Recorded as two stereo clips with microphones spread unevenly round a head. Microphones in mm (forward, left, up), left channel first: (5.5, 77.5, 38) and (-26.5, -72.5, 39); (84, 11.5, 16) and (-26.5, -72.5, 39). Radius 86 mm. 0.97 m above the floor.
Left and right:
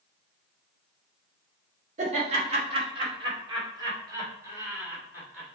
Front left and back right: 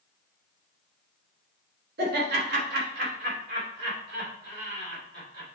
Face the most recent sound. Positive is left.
turn(degrees=175)